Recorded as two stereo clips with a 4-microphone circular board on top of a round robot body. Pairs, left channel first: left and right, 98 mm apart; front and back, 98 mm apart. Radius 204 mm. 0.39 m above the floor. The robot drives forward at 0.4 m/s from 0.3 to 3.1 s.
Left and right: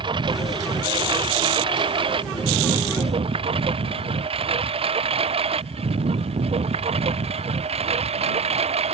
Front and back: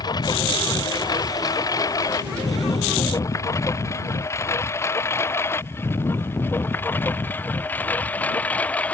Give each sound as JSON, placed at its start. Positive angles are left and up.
{"t": 0.0, "sound": "a lawn mower", "azimuth_deg": -50}